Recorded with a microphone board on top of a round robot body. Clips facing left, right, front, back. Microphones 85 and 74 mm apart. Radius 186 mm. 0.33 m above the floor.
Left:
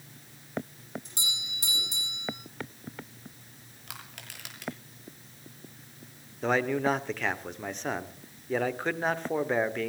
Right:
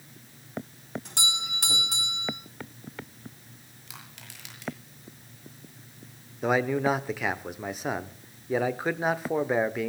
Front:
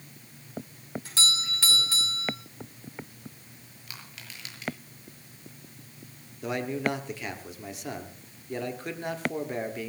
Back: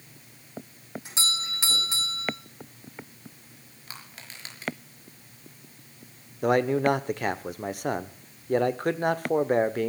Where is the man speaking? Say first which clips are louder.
Right 2 dB, back 8 dB; 170° right, 1.4 m.